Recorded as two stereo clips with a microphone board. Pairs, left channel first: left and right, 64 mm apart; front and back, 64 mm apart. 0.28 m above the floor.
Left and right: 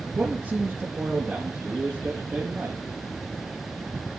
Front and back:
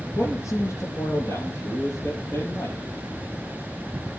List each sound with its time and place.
0.2 s a man speaking: 35° right, 6 m; by 2.9 s 45° right, 8 m